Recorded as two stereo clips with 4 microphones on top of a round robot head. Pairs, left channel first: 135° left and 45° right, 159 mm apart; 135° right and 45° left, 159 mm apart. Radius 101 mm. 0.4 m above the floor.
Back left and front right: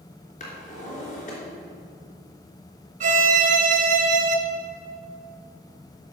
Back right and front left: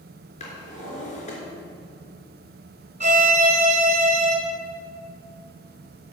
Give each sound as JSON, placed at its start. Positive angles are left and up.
{"t": 0.4, "sound": "a drawer", "azimuth_deg": 180, "distance_m": 3.5}
{"t": 3.0, "sound": "a violin", "azimuth_deg": -5, "distance_m": 1.8}